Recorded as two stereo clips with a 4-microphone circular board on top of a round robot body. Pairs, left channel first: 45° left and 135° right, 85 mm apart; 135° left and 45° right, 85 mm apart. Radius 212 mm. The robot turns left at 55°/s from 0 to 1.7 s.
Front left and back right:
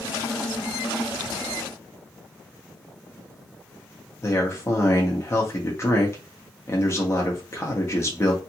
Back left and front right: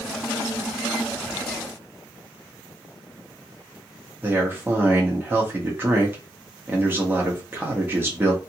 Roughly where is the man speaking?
Ahead.